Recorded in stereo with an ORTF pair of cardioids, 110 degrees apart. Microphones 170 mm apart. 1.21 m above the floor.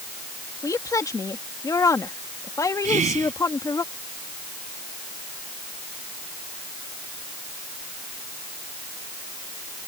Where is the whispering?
45° right.